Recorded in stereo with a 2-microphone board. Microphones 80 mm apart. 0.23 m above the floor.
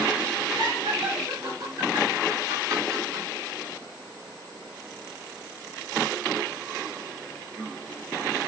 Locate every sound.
0.6 s laughter: 65° right (ahead or behind), 3.5 m; by 3.2 s 35° right (ahead or behind), 3 m